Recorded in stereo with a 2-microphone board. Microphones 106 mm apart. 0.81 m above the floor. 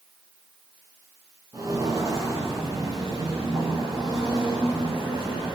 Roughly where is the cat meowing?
I don't hear a cat meowing.